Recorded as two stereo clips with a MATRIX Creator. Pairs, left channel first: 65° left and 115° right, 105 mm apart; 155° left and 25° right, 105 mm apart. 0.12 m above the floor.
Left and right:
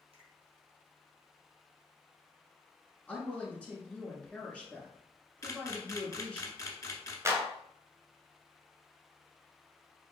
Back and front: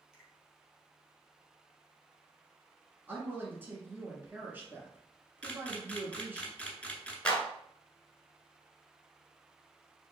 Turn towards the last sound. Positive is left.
turn(degrees=-135)